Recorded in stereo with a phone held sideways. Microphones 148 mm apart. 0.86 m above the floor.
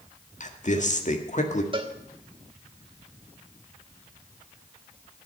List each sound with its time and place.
0.4 s a man speaking: 55° left (ahead or behind), 1.8 m
1.7 s a cowbell: 35° right (ahead or behind), 1.4 m